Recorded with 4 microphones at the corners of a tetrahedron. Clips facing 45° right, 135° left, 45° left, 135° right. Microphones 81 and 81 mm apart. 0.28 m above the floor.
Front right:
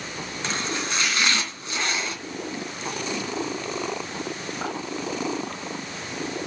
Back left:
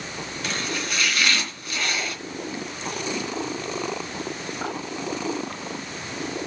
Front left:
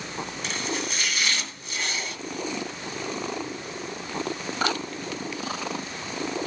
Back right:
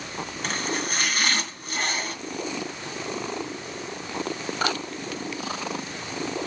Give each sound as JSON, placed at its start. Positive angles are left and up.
{"t": 0.4, "sound": "chopping", "azimuth_deg": -105, "distance_m": 2.5}